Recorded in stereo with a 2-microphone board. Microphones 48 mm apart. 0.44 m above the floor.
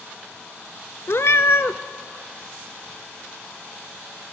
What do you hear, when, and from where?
1.1 s a cat meowing: 65° left (ahead or behind), 0.7 m